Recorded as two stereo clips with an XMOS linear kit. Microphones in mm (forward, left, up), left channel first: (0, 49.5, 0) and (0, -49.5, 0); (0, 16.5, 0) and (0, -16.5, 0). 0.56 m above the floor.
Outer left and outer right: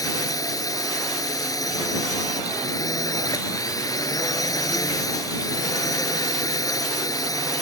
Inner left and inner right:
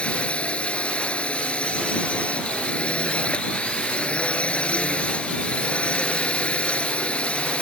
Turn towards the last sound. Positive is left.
turn(degrees=35)  # may be behind; listen again after turning